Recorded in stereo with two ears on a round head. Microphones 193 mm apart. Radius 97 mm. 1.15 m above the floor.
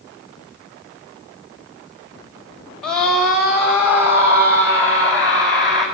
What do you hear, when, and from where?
2.8 s a scream: 5° left (ahead or behind), 5 m; by 5.8 s 20° right (ahead or behind), 8 m